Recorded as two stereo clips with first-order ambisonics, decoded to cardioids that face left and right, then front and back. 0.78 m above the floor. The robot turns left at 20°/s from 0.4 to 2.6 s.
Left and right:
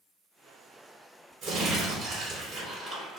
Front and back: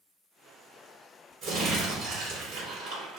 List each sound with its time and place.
1.4 s crumpling: 135° right, 1.6 m; by 3.2 s 160° right, 1.6 m